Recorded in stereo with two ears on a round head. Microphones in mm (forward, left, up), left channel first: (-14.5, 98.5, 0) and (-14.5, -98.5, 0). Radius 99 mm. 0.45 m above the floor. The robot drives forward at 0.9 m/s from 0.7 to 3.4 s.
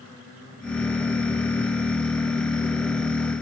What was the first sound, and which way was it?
Only background noise.